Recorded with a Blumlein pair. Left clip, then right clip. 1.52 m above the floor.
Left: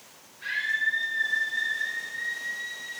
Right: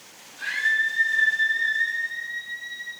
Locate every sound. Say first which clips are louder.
0.4 s a scream: right 4 dB; 40° right, 6 m; by 2.9 s 50° right, 8.5 m